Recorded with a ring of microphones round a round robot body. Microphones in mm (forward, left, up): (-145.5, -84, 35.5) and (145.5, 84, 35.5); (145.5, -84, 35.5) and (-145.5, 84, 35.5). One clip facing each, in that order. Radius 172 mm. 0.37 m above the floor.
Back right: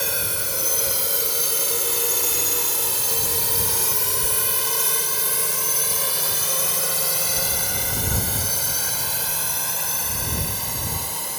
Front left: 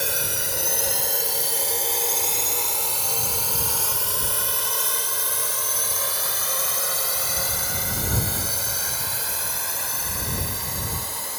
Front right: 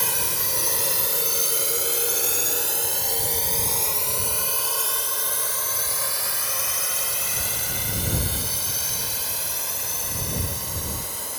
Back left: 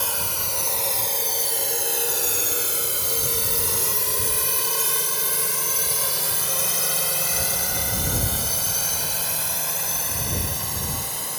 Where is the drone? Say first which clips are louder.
Even, front right 1 dB; 60° right; by 11.4 s 165° left.